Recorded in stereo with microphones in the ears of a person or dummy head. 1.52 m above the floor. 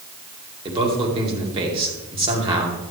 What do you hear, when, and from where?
0.7 s a man speaking: 25° right (ahead or behind), 2.5 m